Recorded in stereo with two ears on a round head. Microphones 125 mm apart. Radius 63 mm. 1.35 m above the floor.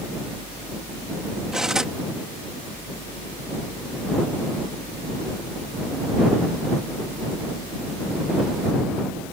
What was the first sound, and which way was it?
Cutlery clinking, 5° right (ahead or behind).